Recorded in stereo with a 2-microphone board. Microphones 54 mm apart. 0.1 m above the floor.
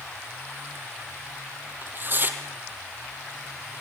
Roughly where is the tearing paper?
Right.